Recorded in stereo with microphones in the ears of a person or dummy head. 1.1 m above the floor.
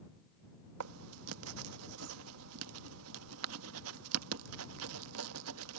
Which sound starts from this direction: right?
Writing, at 0.8 s.